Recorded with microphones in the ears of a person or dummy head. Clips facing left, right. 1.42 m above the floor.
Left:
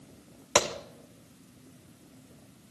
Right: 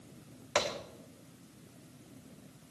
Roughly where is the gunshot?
Left.